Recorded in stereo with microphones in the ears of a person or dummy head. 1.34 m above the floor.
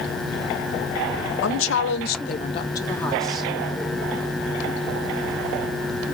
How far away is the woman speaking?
About 0.8 m.